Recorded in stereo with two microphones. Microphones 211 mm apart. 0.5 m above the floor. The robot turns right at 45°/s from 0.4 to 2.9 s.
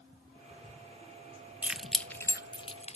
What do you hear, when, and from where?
1.6 s keys jangling: 5° right (ahead or behind), 0.6 m; by 3.0 s 30° left (ahead or behind), 0.6 m